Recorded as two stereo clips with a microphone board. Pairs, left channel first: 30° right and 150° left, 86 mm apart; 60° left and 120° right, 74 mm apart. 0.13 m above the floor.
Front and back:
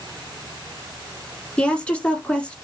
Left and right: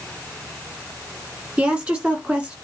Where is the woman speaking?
75° right, 1.5 m.